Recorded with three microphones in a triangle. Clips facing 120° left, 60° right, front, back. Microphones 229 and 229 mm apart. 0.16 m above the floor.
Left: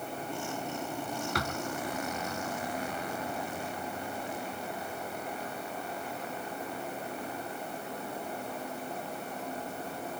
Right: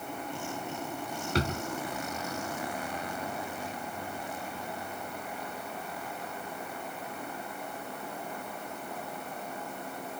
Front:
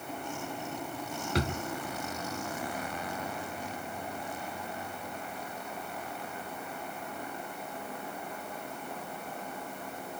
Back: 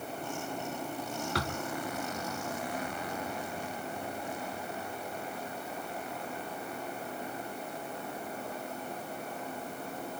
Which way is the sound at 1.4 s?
45° right.